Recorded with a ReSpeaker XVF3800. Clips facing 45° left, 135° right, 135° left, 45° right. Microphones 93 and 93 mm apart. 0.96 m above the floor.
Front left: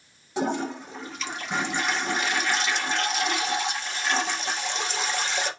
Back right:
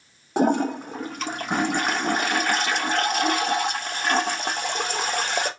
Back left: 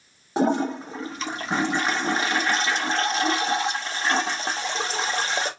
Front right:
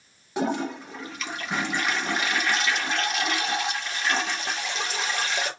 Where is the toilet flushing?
170° right, 0.6 m.